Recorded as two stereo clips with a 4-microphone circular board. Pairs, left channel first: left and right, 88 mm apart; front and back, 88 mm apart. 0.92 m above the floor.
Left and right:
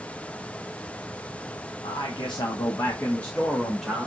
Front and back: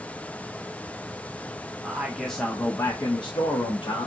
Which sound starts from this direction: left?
A man speaking, at 1.8 s.